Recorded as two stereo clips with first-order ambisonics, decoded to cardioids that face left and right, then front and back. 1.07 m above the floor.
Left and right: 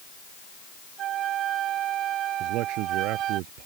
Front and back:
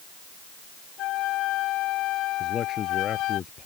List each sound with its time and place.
1.0 s a flute: 40° right
2.4 s a man speaking: 65° right